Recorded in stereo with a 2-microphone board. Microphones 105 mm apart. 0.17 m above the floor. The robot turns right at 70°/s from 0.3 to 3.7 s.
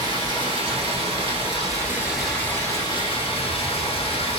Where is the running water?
135° right, 1.0 m; by 4.4 s 105° left, 1.0 m.